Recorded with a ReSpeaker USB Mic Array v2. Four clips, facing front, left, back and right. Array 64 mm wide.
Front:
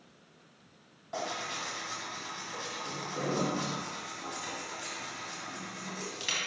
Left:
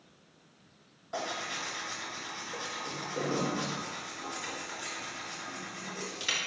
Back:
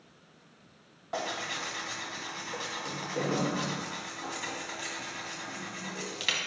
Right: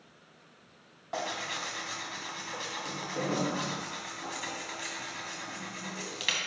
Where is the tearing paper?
130° right, 1.5 m.